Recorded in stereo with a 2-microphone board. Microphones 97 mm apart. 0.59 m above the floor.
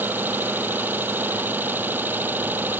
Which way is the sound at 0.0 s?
20° right (ahead or behind).